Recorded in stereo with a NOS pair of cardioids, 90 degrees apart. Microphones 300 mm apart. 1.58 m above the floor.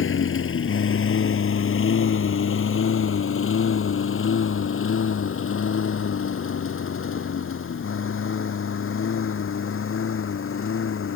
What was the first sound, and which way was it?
A lawn mower, 45° left.